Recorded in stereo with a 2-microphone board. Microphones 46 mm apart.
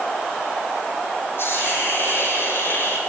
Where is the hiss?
60° left (ahead or behind), 2.5 m.